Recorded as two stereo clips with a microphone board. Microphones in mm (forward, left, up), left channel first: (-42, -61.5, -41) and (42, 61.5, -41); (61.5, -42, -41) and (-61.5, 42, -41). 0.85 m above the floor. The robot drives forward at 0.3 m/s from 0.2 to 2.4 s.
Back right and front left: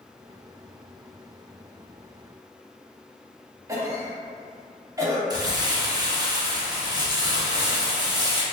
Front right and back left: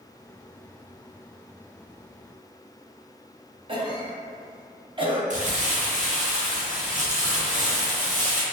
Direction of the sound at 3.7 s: 110° left.